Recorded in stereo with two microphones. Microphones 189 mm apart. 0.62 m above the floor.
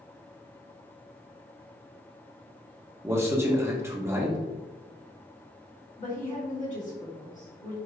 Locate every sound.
3.0 s a man speaking: 15° right (ahead or behind), 0.9 m
6.0 s a woman speaking: 40° left (ahead or behind), 1.4 m